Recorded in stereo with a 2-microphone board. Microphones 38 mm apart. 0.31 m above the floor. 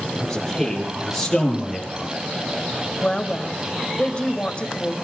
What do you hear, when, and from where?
0.1 s a man speaking: 15° left (ahead or behind), 8.5 m; by 2.1 s centre (ahead or behind), 6.5 m
3.0 s a woman speaking: 30° left (ahead or behind), 1.4 m